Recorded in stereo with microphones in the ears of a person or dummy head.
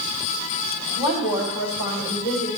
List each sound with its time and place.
1.0 s a woman speaking: 65° left (ahead or behind), 3.5 m